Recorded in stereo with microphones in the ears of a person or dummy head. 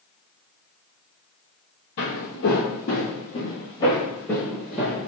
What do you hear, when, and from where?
2.0 s footsteps: 45° left (ahead or behind), 1.6 m; by 5.1 s 5° right (ahead or behind), 1.7 m